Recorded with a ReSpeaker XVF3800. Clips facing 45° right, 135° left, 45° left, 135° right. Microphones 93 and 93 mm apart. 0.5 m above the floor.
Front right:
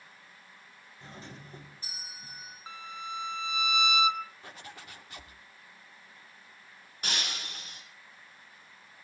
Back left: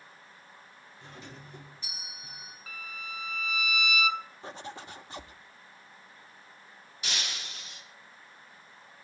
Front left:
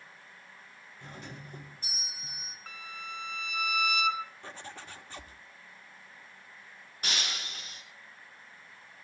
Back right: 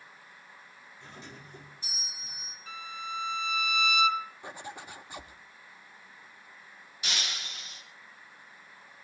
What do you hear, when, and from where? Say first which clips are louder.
1.0 s a doorbell: front right 1 dB, front left 2 dB; 10° left, 4.5 m
2.7 s a violin: front right 3 dB, back right 5 dB; 15° left, 1.1 m
4.4 s a zipper: back left 6 dB, back right 3 dB; 165° left, 1.4 m
7.0 s breaking glass: front right 2 dB, front left 1 dB; straight ahead, 4.5 m